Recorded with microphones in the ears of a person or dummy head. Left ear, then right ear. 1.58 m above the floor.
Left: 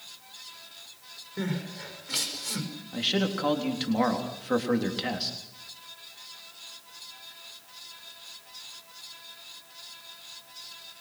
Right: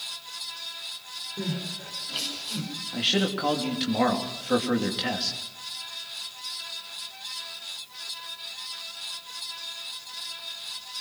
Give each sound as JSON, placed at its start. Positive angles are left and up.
{"t": 1.4, "sound": "crying", "side_deg": 70, "distance_m": 5.5}
{"t": 2.9, "sound": "a man speaking", "side_deg": 0, "distance_m": 3.5}